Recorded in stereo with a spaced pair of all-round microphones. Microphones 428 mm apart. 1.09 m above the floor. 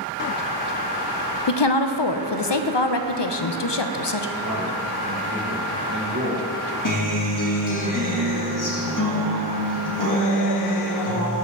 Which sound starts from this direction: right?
A man speaking, at 4.4 s.